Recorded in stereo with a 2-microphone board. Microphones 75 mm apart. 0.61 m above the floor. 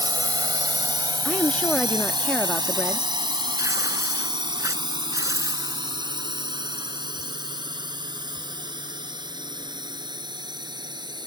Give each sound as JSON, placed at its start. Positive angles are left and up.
{"t": 0.0, "sound": "a drone", "side_deg": -65}
{"t": 1.2, "sound": "a woman speaking", "side_deg": 15}
{"t": 3.6, "sound": "tearing paper", "side_deg": -45}